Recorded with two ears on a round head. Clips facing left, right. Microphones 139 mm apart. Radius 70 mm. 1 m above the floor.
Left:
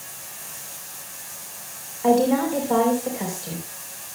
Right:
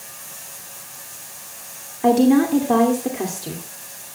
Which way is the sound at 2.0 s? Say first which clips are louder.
Right 4 dB; 80° right.